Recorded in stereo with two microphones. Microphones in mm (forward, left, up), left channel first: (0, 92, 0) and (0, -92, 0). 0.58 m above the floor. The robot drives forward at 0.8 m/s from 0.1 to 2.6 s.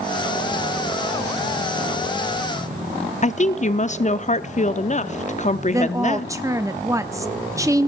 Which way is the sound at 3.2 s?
40° left (ahead or behind).